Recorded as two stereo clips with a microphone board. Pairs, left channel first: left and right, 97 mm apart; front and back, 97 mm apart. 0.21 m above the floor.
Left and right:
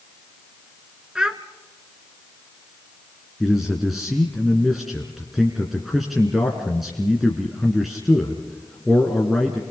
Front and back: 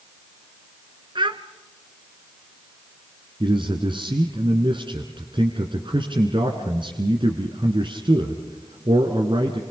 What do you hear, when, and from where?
1.1 s a child speaking: 170° right, 1.2 m
3.4 s a man speaking: straight behind, 2 m